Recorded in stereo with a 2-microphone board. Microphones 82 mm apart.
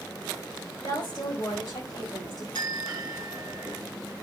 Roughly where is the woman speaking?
Left.